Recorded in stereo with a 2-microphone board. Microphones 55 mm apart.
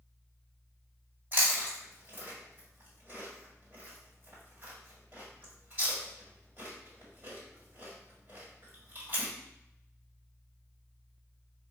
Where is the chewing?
35° right (ahead or behind), 1.9 m.